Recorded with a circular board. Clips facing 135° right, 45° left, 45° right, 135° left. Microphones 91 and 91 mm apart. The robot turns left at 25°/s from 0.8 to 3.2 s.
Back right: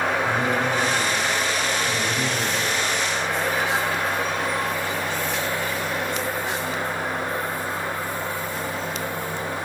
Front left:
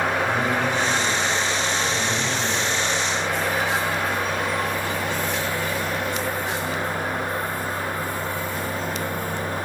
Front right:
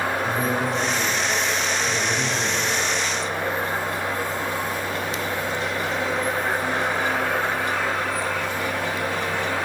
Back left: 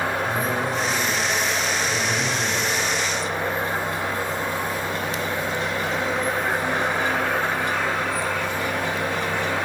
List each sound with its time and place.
0.2 s a man speaking: 70° right, 3 m; by 2.7 s 120° right, 3 m